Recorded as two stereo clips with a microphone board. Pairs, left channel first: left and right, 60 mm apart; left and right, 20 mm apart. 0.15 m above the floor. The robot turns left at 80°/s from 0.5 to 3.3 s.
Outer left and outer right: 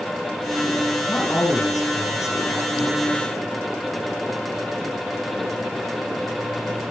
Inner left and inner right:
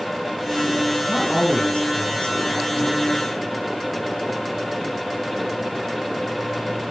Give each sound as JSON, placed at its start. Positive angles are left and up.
{"t": 1.1, "sound": "a man speaking", "azimuth_deg": 155, "distance_m": 3.5}